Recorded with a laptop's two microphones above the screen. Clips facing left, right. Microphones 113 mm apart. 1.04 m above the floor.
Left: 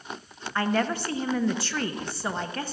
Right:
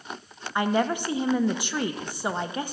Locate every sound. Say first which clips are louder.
0.6 s a woman speaking: right 2 dB; 15° right (ahead or behind), 0.5 m